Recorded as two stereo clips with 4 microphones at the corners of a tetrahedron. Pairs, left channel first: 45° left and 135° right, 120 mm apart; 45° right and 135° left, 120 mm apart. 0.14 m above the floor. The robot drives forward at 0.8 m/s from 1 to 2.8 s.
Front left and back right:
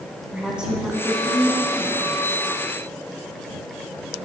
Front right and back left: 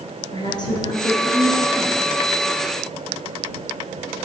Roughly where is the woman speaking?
Ahead right.